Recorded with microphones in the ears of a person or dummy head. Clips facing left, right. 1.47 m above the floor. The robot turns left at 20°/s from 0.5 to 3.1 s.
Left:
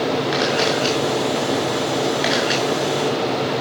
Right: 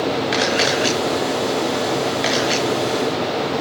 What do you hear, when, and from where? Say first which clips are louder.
0.3 s a camera shutter: even; 30° right (ahead or behind), 7 m; by 2.6 s 15° left (ahead or behind), 7 m